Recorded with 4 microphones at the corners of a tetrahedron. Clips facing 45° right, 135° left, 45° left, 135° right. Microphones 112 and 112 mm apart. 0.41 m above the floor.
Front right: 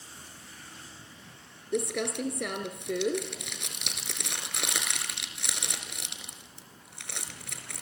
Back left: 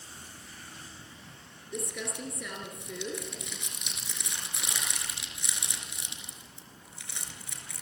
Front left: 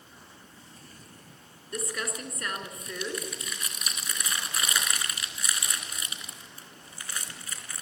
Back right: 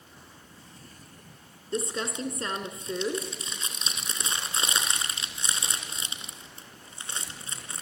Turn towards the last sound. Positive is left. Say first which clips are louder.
# front right 8 dB, back right 4 dB
turn(degrees=-70)